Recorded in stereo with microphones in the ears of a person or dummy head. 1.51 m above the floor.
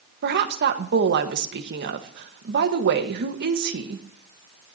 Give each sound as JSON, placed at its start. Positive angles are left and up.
{"t": 0.2, "sound": "a woman speaking", "side_deg": -55, "distance_m": 1.5}